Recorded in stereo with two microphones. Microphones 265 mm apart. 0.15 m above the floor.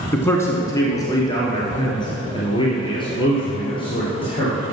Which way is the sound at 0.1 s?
10° left (ahead or behind).